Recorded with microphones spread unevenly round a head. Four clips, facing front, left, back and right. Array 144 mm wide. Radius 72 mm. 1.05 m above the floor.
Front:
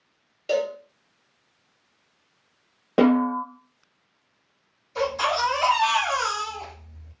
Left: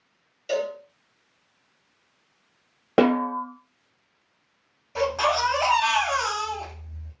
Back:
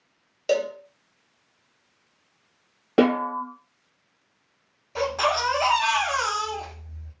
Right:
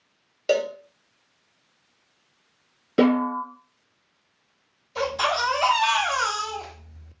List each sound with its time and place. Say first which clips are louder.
0.5 s a cowbell: right 4 dB, back 1 dB; 120° right, 0.7 m
3.0 s a snare drum: even, front 2 dB; 85° left, 1.2 m
5.0 s a baby crying: left 2 dB, even; 140° left, 1.2 m